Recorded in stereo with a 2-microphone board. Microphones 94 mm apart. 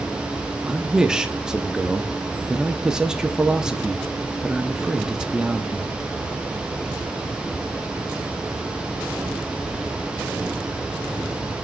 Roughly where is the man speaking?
Centre.